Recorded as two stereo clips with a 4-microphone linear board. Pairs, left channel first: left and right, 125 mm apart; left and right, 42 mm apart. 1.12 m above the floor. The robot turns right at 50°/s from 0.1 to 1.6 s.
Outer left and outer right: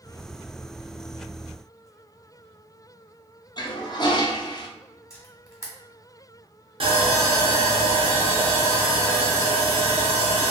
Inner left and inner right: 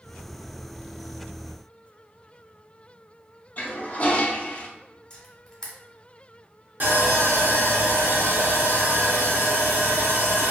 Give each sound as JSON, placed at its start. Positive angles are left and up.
{"t": 3.6, "sound": "a toilet flushing", "side_deg": 35, "distance_m": 0.5}
{"t": 5.1, "sound": "a camera shutter", "side_deg": 25, "distance_m": 1.3}
{"t": 6.8, "sound": "sawing", "side_deg": -50, "distance_m": 1.0}